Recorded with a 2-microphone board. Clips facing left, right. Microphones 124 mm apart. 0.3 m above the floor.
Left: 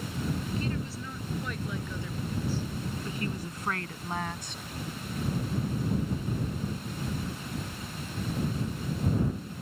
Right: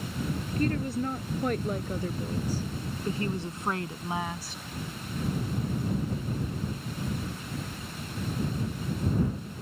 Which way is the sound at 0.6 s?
55° right (ahead or behind).